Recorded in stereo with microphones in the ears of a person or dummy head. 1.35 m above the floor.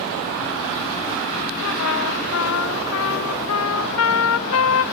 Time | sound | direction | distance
1.6 | a trumpet | 85° left | 0.7 m